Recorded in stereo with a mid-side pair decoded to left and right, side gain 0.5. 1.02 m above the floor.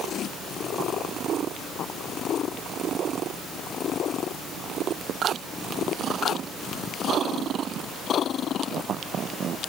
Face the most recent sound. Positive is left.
No sound to turn to.